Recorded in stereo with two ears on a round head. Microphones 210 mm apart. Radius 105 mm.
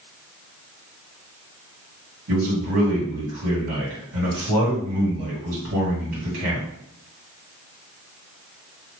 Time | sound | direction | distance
2.3 | a man speaking | 70° right (ahead or behind) | 1.9 m